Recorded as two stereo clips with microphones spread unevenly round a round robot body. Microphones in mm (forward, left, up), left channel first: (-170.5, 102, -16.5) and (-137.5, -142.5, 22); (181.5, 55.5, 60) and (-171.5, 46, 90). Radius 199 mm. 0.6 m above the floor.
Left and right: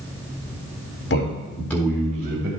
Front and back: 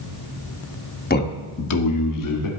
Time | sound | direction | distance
1.1 | a man speaking | 60° left | 1.6 m